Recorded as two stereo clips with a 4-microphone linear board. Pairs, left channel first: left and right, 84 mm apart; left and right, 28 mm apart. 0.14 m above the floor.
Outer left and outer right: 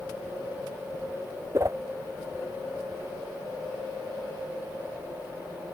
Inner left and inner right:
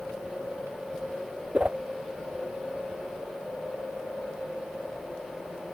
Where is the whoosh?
40° right (ahead or behind).